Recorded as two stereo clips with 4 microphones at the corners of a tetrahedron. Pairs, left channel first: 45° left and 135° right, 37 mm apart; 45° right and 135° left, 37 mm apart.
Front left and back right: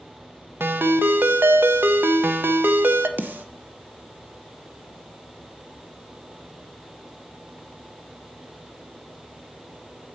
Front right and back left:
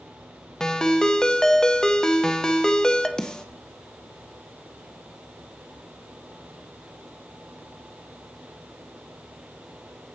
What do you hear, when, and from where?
0.6 s a ringtone: 120° right, 0.7 m
3.2 s a snare drum: 115° right, 0.8 m